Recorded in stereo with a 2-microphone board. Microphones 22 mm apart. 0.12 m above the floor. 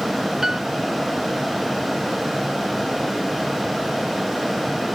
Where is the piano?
20° right (ahead or behind).